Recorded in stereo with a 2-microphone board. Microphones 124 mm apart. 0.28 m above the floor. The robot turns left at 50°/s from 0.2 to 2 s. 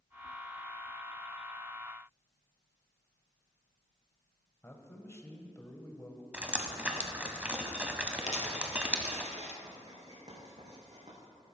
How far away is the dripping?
About 0.8 m.